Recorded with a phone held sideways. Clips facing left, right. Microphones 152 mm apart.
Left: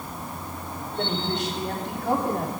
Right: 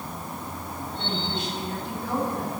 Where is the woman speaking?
85° left, 3.5 m; by 2.5 s 75° left (ahead or behind), 3.5 m.